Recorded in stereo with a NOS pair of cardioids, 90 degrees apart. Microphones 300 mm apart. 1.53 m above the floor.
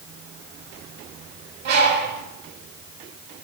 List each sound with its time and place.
1.6 s a bird: 55° right, 1.4 m